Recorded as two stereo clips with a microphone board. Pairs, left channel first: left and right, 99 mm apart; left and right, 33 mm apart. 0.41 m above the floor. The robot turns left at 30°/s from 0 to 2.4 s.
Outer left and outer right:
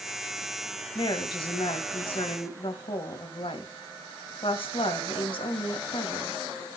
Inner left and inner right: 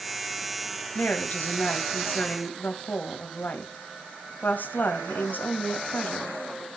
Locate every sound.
0.9 s a woman speaking: 125° left, 2.5 m; by 6.4 s 80° left, 2.5 m